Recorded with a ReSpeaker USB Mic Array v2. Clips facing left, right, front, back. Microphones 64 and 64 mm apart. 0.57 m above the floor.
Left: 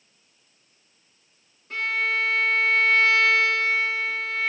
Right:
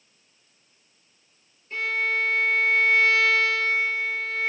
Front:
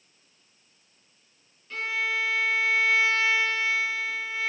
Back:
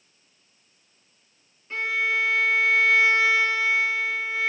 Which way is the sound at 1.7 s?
110° left.